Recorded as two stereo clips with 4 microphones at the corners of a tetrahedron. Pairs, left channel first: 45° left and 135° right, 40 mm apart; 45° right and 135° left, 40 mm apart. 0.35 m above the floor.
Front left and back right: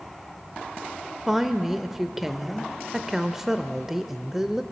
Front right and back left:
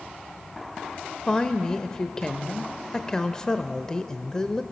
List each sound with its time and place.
1.3 s a woman speaking: 70° right, 0.8 m